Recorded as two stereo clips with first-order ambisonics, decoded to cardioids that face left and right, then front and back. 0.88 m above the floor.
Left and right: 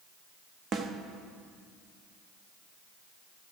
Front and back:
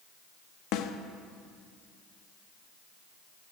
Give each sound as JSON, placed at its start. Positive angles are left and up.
{"t": 0.7, "sound": "a snare drum", "azimuth_deg": -30, "distance_m": 0.8}